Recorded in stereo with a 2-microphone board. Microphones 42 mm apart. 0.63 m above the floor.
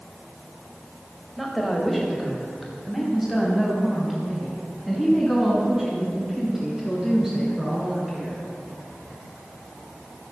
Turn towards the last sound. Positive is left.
turn(degrees=-10)  # may be behind; listen again after turning